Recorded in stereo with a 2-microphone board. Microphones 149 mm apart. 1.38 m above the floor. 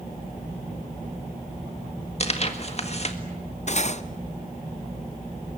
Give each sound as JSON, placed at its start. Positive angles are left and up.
{"t": 2.2, "sound": "tearing paper", "side_deg": 45, "distance_m": 1.8}
{"t": 3.7, "sound": "cutlery clinking", "side_deg": 50, "distance_m": 0.7}